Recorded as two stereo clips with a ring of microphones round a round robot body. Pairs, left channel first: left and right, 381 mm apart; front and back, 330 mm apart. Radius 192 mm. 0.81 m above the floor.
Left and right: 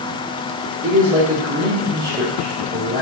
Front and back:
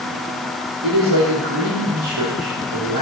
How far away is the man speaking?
About 2.5 m.